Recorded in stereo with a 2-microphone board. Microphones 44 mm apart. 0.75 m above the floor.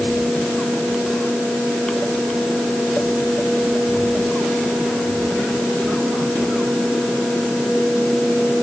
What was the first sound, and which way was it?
Only background noise.